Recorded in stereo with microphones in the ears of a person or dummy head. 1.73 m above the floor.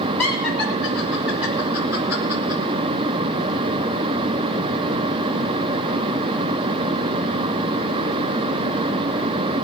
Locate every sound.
0.2 s laughter: 5° left (ahead or behind), 6 m; by 2.6 s 30° right (ahead or behind), 4.5 m